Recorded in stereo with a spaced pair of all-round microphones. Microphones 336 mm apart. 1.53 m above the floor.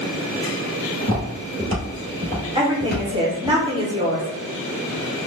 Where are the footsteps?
15° left (ahead or behind), 1.6 m; by 3.5 s 10° right (ahead or behind), 1.6 m.